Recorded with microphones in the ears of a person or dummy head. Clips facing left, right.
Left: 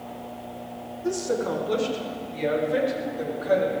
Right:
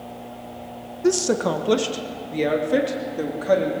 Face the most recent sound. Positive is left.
turn(degrees=-60)  # may be behind; listen again after turning